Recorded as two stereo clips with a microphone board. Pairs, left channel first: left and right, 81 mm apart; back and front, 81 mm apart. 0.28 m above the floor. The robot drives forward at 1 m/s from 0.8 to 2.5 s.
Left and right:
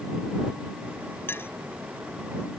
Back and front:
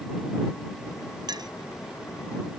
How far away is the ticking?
I don't hear ticking.